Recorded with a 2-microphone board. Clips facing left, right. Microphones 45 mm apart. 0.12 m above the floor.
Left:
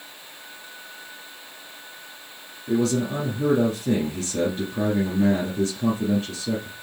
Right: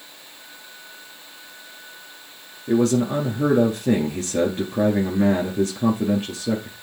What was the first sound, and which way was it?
A man speaking, 35° right (ahead or behind).